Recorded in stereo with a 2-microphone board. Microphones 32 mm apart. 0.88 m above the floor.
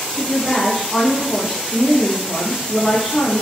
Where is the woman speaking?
5° right (ahead or behind), 0.8 m.